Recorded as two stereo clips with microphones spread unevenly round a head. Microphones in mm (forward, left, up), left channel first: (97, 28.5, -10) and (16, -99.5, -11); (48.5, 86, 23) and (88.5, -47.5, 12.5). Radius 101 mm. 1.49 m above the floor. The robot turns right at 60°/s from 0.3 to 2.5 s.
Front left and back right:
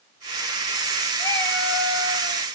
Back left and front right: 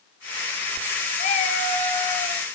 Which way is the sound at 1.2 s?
115° left.